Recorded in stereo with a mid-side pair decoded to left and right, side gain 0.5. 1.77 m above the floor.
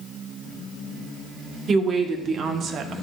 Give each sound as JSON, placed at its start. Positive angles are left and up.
{"t": 1.7, "sound": "a woman speaking", "azimuth_deg": -45, "distance_m": 2.0}